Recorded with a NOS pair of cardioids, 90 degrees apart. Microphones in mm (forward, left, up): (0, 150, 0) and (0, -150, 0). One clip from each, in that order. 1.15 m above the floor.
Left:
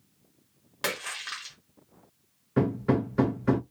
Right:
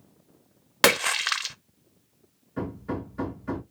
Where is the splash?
60° right, 0.6 m.